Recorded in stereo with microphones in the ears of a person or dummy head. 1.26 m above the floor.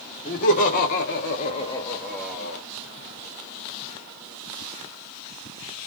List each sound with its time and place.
0.2 s laughter: 40° left (ahead or behind), 1.0 m; by 2.6 s 5° right (ahead or behind), 0.8 m